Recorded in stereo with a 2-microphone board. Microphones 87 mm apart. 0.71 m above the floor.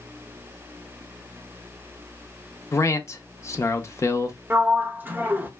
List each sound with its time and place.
2.7 s a man speaking: 35° left (ahead or behind), 0.6 m
4.5 s a sliding door: 20° right (ahead or behind), 0.5 m